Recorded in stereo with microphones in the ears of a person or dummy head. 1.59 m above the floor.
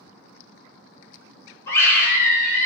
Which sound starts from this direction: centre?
A scream, at 1.7 s.